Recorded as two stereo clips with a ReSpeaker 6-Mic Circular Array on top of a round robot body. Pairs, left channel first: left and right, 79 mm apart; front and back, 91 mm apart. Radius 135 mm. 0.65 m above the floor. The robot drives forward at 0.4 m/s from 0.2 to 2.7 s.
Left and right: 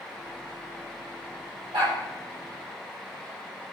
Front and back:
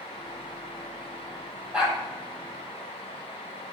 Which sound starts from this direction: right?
A dog barking, at 1.7 s.